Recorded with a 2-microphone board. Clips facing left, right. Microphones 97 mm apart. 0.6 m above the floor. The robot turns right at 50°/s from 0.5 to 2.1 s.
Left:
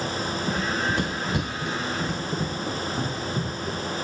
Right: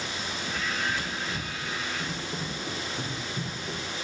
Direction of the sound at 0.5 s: 35° left (ahead or behind).